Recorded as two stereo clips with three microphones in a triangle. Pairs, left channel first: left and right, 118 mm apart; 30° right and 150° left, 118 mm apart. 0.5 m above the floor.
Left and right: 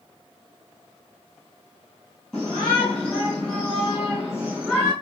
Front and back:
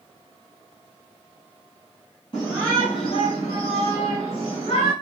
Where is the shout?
10° left, 6.5 m; by 4.9 s 20° left, 6 m.